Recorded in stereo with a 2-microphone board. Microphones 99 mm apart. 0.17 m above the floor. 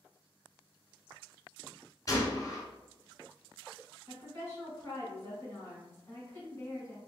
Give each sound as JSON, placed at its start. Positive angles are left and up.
{"t": 2.1, "sound": "a gunshot", "side_deg": 35, "distance_m": 0.8}
{"t": 4.1, "sound": "a woman speaking", "side_deg": 30, "distance_m": 1.3}